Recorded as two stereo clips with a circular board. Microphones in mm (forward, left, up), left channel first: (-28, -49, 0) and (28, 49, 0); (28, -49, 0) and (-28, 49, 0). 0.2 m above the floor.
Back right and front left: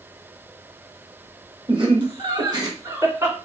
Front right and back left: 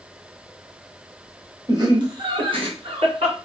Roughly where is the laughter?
Left.